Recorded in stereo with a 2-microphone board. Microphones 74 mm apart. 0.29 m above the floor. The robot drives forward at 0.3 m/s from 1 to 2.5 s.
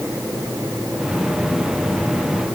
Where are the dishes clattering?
I don't hear dishes clattering.